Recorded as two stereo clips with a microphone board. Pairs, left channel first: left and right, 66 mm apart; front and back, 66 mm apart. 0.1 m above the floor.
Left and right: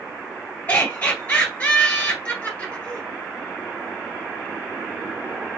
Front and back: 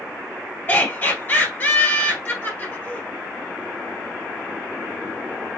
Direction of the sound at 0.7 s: 35° left.